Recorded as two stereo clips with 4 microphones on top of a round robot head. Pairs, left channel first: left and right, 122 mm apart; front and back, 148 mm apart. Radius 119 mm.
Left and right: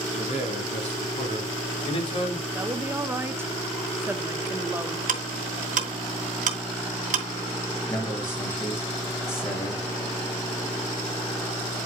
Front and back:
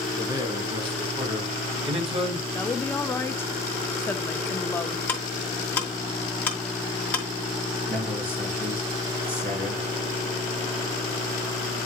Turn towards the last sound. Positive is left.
turn(degrees=160)